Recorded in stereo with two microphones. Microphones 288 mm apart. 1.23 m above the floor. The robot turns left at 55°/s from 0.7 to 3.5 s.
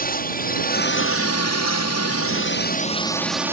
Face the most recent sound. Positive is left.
turn(degrees=-10)